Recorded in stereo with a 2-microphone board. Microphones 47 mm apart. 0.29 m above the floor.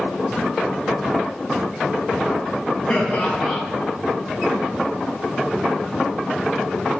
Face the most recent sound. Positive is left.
turn(degrees=25)  # may be behind; listen again after turning